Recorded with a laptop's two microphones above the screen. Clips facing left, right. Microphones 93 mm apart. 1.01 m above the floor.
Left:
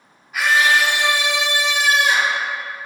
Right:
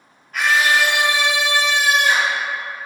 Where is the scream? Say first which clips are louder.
Even; 10° left (ahead or behind), 1.7 m; by 2.4 s 50° right (ahead or behind), 3.5 m.